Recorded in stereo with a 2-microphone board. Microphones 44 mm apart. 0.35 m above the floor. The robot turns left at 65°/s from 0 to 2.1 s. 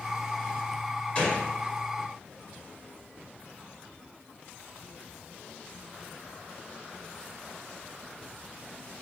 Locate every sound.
1.1 s a gunshot: 30° left (ahead or behind), 0.8 m; by 1.5 s 35° left (ahead or behind), 0.8 m